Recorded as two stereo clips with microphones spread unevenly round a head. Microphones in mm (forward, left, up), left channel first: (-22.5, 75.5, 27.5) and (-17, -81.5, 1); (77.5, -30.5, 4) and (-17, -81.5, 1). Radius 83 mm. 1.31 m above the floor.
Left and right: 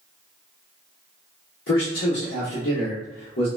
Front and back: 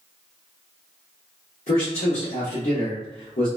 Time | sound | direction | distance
1.7 | a man speaking | 60° left | 1.0 m